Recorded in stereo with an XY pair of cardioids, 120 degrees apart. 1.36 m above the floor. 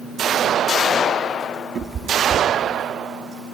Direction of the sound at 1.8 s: 45° right.